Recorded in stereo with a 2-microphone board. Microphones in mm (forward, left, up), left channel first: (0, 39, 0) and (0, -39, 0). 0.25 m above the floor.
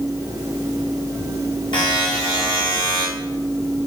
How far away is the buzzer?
About 4.5 m.